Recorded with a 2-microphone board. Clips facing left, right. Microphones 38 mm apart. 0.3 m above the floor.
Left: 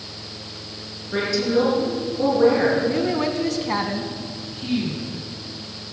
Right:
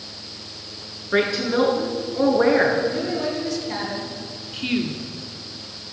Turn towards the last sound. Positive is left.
turn(degrees=-65)  # may be behind; listen again after turning